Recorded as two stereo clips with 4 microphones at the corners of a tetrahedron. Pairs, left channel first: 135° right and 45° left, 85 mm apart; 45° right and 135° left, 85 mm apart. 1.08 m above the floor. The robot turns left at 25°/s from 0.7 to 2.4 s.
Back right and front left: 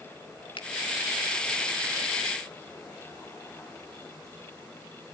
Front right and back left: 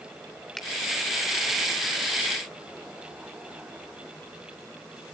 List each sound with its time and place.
0.6 s a finger snap: 130° right, 2.5 m